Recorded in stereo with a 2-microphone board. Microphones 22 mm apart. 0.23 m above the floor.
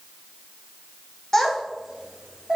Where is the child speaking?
15° left (ahead or behind), 0.7 m; by 2.6 s 45° right (ahead or behind), 1.0 m.